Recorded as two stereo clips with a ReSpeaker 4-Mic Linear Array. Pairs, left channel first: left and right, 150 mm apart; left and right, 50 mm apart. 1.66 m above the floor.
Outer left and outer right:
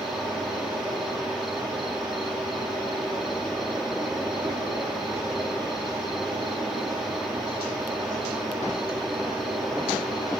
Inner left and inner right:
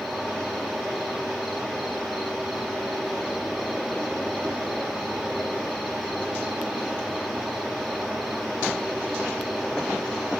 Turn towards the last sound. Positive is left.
turn(degrees=0)  # may be behind; listen again after turning